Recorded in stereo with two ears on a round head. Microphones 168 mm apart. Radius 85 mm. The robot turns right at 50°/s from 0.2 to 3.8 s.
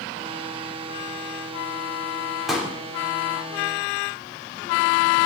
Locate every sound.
2.5 s a pop: centre (ahead or behind), 3.5 m; by 2.7 s 15° right (ahead or behind), 3.5 m